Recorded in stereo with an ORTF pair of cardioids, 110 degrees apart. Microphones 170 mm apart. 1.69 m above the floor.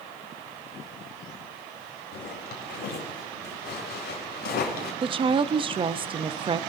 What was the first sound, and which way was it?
A zipper, 65° left.